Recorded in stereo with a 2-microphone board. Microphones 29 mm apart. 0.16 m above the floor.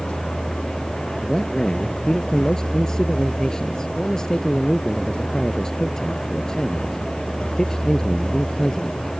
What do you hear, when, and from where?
0.0 s a vehicle: 35° left (ahead or behind)
1.2 s a man speaking: 20° left (ahead or behind)